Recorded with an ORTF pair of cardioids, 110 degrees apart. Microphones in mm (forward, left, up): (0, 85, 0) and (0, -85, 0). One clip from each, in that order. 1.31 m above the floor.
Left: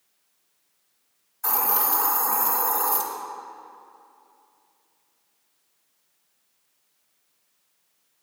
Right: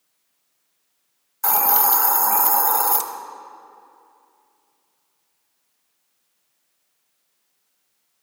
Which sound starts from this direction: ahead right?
A hiss, at 1.4 s.